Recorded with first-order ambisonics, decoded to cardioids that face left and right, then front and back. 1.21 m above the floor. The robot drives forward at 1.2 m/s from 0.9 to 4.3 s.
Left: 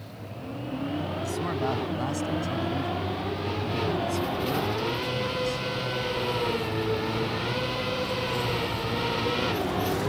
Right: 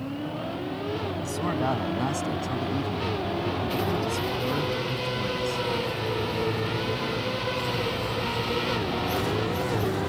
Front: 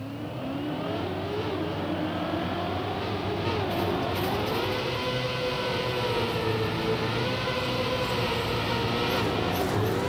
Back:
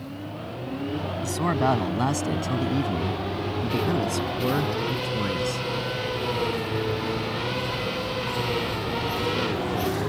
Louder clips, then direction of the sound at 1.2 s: Right 2 dB, back 6 dB; 170° right.